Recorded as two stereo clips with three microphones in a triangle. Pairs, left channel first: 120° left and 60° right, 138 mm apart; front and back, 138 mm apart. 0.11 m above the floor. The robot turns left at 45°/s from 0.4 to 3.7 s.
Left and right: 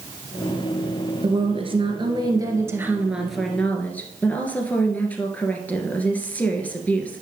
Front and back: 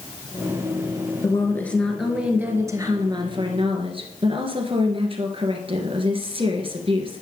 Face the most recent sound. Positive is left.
turn(degrees=-165)